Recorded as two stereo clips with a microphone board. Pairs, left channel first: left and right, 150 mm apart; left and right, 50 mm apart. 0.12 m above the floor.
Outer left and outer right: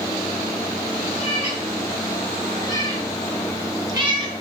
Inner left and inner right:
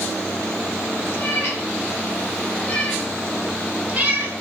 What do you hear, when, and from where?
1.1 s a cat meowing: 45° left (ahead or behind), 1.5 m; by 4.4 s 40° right (ahead or behind), 0.8 m